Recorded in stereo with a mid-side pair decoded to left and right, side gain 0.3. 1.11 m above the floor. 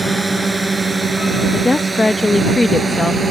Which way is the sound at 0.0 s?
25° right.